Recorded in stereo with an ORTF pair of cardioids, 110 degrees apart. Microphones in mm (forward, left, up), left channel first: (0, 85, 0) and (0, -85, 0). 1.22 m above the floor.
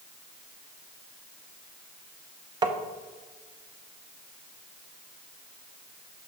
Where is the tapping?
25° right, 0.7 m.